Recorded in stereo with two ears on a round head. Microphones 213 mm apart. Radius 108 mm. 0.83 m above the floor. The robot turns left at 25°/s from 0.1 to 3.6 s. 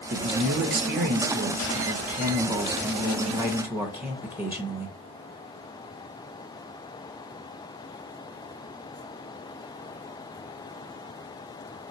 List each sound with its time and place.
0.1 s a man speaking: 80° right, 0.6 m; by 4.9 s 170° right, 0.6 m